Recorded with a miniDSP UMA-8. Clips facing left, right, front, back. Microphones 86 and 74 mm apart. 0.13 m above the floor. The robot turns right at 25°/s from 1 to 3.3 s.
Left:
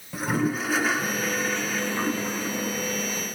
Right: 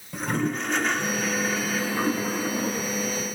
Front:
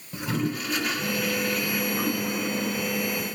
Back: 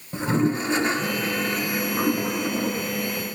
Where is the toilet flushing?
170° left, 1.1 m; by 3.1 s 135° right, 1.1 m.